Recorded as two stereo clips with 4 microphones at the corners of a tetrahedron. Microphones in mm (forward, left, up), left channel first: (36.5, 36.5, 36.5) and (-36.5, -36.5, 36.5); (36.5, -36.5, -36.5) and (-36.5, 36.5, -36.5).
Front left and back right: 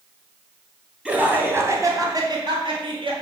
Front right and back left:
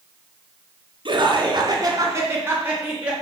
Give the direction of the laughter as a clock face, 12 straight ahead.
7 o'clock.